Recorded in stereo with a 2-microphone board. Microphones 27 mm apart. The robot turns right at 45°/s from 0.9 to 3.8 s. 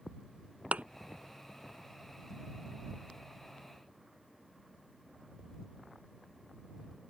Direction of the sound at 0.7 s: 65° right (ahead or behind).